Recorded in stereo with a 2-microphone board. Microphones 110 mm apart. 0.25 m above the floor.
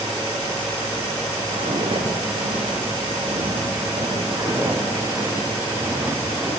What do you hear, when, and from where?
1.5 s footsteps: 85° right, 6 m; by 4.2 s 65° right (ahead or behind), 8 m
4.3 s footsteps: 35° right (ahead or behind), 7.5 m; by 6.5 s 15° right (ahead or behind), 8.5 m